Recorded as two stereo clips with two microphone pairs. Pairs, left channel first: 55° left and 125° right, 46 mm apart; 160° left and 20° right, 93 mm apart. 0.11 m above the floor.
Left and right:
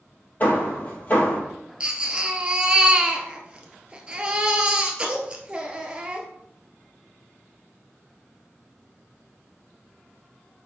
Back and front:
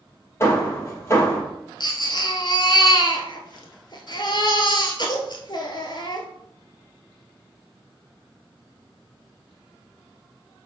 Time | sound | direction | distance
0.4 | hammering | 100° left | 3 m
1.8 | a baby crying | 170° left | 1.3 m